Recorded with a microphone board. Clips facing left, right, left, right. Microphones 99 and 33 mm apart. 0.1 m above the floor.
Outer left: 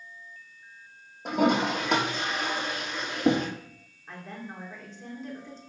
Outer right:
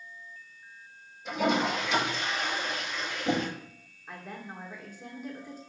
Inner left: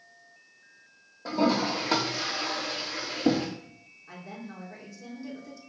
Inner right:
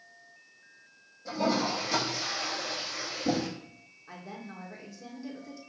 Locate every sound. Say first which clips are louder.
1.2 s a toilet flushing: outer left 3 dB, inner left 3 dB; 55° left (ahead or behind), 4.5 m
4.1 s a woman speaking: outer left 1 dB, inner left 1 dB; 10° right (ahead or behind), 4.5 m